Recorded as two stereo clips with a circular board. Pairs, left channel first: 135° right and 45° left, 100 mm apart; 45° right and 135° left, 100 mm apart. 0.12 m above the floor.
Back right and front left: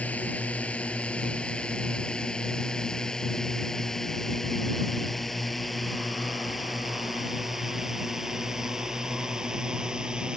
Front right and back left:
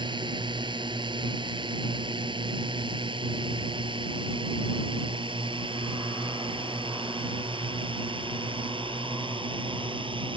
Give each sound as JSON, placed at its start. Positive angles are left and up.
{"t": 0.0, "sound": "a drone", "azimuth_deg": 150}